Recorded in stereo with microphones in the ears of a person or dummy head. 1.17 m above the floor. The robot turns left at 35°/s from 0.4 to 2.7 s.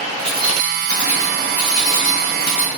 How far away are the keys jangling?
About 1.1 m.